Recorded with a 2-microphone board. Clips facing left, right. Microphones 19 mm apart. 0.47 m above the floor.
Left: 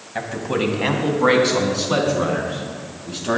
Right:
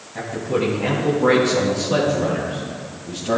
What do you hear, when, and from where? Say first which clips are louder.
0.1 s a man speaking: even; 55° left (ahead or behind), 2.5 m